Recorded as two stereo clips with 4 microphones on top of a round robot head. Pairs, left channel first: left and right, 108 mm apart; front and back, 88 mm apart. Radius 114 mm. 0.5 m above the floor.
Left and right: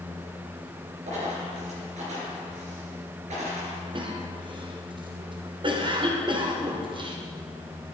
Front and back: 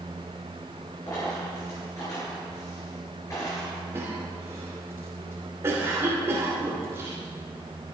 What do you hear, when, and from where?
1.1 s a dropped coin: 65° right, 5 m
3.9 s a cough: 125° right, 2.5 m